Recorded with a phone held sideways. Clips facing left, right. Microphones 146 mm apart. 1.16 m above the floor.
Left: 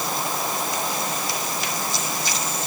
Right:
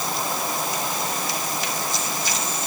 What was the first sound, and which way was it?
Only background noise.